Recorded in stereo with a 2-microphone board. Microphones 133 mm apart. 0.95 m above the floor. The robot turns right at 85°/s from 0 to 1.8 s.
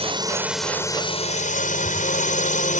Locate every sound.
0.0 s a drone: 50° right; by 2.8 s 100° left